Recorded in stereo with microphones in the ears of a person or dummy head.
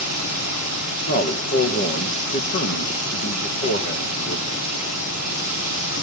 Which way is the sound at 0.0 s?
35° left (ahead or behind).